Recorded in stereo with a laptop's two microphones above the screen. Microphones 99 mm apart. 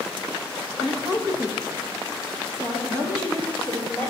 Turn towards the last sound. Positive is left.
turn(degrees=15)  # may be behind; listen again after turning